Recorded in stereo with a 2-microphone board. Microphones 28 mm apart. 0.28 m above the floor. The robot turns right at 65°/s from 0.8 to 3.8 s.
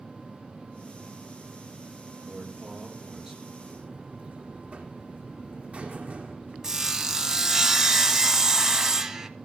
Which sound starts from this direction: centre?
Sawing, at 6.6 s.